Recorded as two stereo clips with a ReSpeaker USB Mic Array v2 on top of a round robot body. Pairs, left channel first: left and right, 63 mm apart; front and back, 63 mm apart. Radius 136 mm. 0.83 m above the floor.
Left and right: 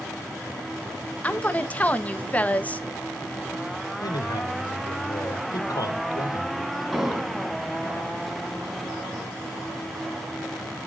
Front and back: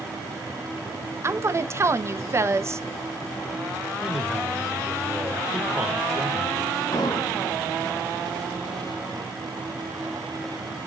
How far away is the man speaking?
About 3 m.